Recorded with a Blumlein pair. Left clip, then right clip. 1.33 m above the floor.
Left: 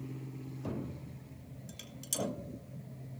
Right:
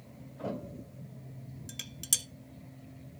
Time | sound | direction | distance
1.7 | dishes clattering | 65° right | 0.8 m